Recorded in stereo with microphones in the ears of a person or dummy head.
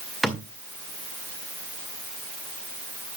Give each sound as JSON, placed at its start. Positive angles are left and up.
{"t": 0.2, "sound": "a thud", "side_deg": -5, "distance_m": 1.8}